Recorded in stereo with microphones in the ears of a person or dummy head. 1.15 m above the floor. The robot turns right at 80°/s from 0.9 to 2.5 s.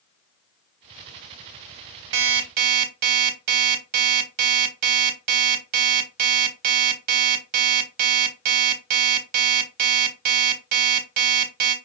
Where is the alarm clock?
70° right (ahead or behind), 1.6 m; by 11.8 s 55° right (ahead or behind), 1.6 m.